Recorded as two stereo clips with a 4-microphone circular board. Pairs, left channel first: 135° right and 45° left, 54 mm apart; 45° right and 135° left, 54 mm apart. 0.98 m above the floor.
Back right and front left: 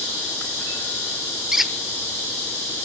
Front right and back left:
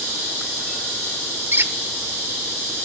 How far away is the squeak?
About 0.7 m.